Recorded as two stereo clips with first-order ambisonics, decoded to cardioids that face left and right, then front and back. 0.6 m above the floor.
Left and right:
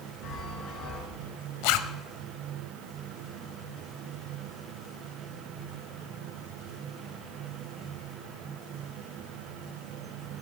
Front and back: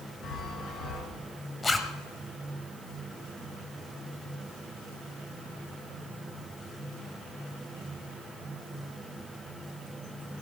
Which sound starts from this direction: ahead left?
A chime, at 0.2 s.